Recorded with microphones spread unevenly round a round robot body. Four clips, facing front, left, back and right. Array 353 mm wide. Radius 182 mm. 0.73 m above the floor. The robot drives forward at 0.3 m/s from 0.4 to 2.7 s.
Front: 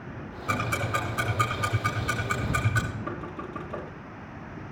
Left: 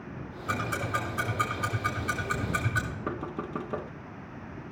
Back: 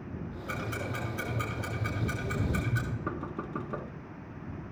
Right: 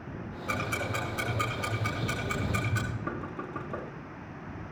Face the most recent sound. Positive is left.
turn(degrees=115)